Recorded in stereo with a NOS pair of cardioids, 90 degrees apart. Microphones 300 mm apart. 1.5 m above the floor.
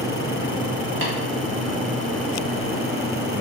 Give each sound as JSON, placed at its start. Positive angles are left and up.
{"t": 1.0, "sound": "tapping", "azimuth_deg": -40, "distance_m": 1.1}